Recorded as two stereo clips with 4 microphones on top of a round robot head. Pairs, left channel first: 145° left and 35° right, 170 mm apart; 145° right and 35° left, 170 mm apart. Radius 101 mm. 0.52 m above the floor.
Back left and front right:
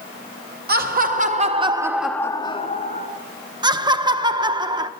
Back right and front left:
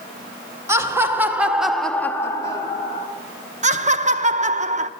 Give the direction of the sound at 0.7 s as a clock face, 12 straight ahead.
1 o'clock.